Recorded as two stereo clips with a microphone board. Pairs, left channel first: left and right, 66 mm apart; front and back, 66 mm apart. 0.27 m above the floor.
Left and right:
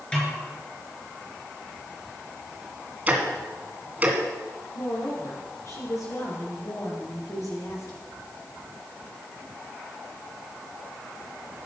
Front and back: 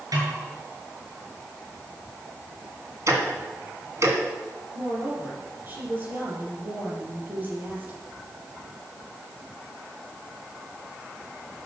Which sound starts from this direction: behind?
A snare drum, at 0.1 s.